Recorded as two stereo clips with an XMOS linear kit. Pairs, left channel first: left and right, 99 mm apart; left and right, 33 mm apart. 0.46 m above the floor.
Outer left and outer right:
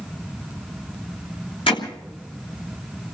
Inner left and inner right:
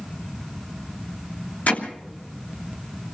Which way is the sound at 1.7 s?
65° left (ahead or behind).